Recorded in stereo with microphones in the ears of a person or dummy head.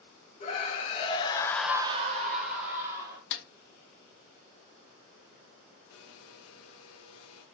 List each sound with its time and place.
0.4 s a scream: 30° left (ahead or behind), 1.6 m; by 3.2 s 40° right (ahead or behind), 1.6 m
3.3 s a snare drum: 60° left (ahead or behind), 1.2 m
5.9 s a blender: 75° left (ahead or behind), 0.9 m